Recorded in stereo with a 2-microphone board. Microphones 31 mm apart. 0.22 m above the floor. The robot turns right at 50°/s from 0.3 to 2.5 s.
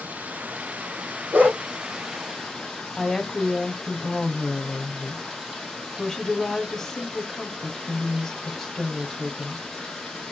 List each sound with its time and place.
0.0 s running water: 95° right, 5 m; by 10.3 s 15° left, 5 m
1.3 s a dog barking: 75° right (ahead or behind), 4 m; by 1.6 s 60° right (ahead or behind), 4 m
3.0 s a woman speaking: 10° left (ahead or behind), 1.7 m